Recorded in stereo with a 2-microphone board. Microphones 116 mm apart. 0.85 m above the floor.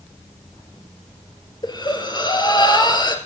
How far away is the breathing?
About 2.5 m.